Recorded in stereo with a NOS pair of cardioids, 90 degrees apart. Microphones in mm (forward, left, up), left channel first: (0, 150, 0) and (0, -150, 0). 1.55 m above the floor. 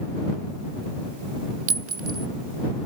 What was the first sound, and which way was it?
A clink, 50° right.